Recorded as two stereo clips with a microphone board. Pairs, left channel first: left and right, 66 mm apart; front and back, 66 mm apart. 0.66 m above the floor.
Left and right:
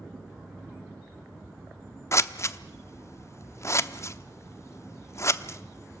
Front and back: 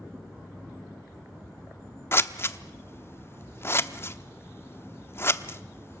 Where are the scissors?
50° left, 0.8 m.